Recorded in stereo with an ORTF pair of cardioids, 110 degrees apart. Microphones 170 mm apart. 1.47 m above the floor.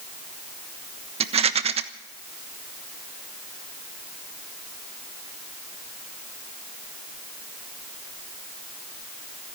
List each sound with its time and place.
1.2 s a rattle: 40° right, 1.3 m